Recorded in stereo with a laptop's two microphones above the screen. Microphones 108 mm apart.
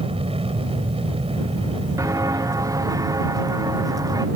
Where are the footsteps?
30° right (ahead or behind); by 4.2 s 35° right (ahead or behind).